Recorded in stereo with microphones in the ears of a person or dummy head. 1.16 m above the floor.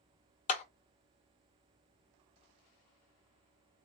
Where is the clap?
40° left (ahead or behind), 0.6 m.